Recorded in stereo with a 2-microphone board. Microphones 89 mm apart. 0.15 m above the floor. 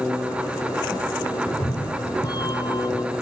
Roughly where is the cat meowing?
Left.